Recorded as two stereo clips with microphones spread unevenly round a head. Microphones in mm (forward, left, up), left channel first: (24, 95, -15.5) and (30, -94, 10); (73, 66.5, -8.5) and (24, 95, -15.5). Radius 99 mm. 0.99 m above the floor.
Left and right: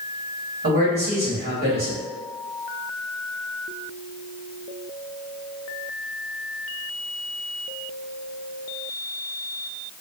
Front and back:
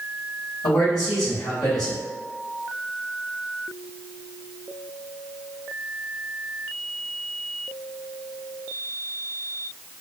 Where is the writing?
No writing in this recording.